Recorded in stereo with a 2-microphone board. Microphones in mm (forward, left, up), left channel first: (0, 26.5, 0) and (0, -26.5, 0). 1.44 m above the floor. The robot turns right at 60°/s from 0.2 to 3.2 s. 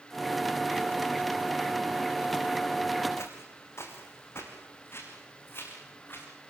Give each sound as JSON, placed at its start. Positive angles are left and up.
{"t": 3.2, "sound": "footsteps", "side_deg": 65, "distance_m": 5.0}